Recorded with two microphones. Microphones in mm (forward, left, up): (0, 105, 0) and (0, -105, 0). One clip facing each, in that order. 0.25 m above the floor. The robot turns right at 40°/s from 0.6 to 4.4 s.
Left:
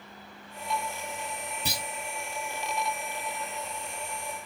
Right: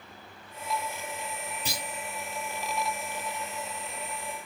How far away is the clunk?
About 1.7 m.